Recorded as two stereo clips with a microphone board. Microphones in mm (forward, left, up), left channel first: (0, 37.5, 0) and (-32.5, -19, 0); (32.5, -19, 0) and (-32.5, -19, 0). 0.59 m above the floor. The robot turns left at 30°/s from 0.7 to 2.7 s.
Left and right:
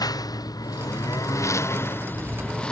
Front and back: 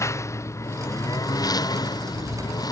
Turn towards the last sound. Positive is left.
turn(degrees=-15)